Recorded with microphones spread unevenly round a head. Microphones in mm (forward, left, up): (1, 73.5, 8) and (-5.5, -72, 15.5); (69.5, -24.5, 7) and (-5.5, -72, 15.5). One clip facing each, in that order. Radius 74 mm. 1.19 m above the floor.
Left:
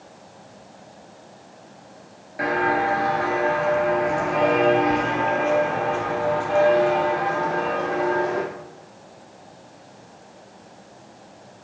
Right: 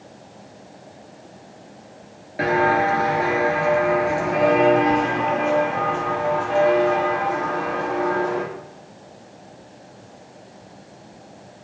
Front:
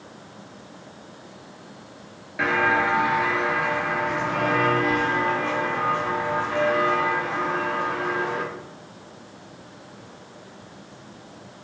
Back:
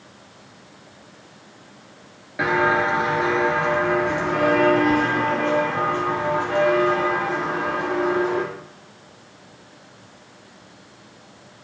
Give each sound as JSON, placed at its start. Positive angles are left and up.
{"t": 2.4, "sound": "footsteps", "azimuth_deg": -100, "distance_m": 1.3}